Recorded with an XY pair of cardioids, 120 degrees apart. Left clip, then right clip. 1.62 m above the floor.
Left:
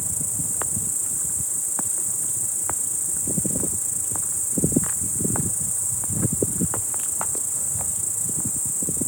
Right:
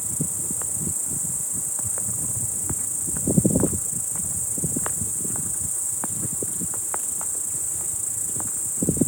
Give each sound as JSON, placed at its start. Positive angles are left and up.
{"t": 0.0, "sound": "an insect", "azimuth_deg": 10}